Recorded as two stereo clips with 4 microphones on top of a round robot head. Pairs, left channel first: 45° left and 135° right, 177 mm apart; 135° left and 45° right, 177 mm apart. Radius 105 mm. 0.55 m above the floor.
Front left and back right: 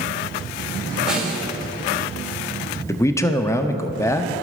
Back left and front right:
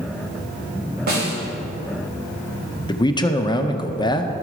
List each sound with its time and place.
1.1 s a snare drum: 50° right, 2.5 m
2.9 s a man speaking: 100° left, 0.7 m